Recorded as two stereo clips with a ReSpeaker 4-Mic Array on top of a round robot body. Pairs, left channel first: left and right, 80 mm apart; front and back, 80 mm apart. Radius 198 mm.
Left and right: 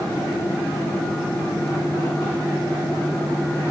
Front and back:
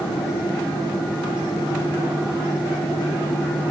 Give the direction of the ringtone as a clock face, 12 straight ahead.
No ringtone in this recording.